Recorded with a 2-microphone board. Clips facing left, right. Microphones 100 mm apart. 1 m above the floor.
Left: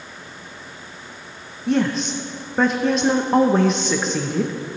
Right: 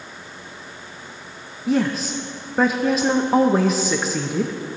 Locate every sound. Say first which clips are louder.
1.7 s a woman speaking: left 1 dB; 5° right (ahead or behind), 0.6 m